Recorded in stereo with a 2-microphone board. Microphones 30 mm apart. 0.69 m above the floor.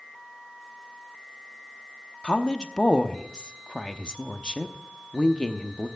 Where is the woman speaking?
30° left (ahead or behind), 0.8 m.